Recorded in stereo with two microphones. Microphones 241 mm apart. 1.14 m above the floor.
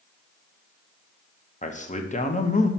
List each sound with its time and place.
1.6 s a man speaking: 30° left (ahead or behind), 0.8 m